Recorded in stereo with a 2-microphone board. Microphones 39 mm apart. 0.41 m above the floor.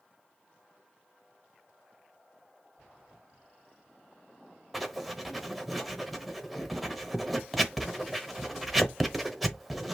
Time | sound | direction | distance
4.7 | writing | centre (ahead or behind) | 0.8 m